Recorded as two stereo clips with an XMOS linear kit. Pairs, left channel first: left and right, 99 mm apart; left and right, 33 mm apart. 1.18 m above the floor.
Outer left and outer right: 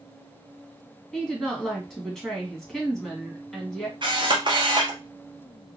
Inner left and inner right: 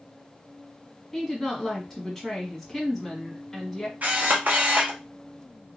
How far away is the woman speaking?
About 1.5 m.